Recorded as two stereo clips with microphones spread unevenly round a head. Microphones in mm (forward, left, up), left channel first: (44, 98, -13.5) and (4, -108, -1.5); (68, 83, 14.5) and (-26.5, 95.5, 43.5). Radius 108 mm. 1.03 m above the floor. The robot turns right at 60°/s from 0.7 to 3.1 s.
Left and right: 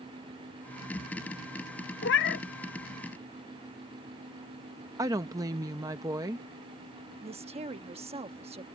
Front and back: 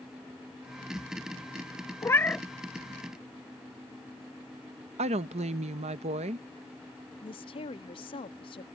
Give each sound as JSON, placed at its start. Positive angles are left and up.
{"t": 2.0, "sound": "a cat meowing", "azimuth_deg": 60}
{"t": 5.0, "sound": "a woman speaking", "azimuth_deg": -175}
{"t": 7.2, "sound": "a woman speaking", "azimuth_deg": -40}